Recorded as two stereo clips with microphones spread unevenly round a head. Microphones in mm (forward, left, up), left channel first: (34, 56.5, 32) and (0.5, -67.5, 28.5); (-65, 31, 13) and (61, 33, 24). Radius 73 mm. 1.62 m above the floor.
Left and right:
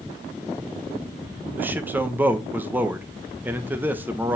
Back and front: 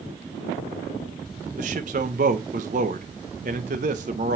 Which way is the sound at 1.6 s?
30° right.